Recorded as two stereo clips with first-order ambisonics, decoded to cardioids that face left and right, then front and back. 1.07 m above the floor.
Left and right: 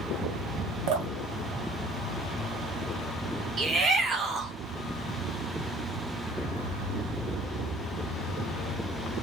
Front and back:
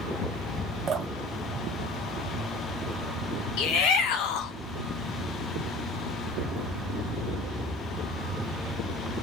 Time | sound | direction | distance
0.9 | dripping | 110° right | 1.7 m
3.6 | a shout | 20° right | 1.0 m